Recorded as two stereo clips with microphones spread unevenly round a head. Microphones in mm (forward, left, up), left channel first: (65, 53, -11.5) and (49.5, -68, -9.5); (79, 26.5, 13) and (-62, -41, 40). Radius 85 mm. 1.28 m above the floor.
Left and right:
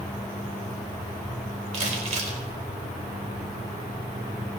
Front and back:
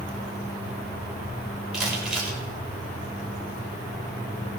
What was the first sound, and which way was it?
Crumpling, 70° right.